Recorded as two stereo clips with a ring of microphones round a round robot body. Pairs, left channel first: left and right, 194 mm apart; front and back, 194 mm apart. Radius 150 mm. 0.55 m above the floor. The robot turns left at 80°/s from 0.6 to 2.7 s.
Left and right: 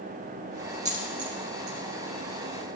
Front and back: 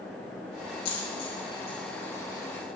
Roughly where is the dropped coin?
Ahead right.